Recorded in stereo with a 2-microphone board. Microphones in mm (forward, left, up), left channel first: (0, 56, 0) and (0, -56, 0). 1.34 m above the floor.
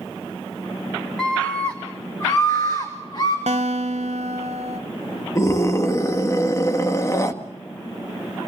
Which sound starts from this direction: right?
A guitar, at 3.5 s.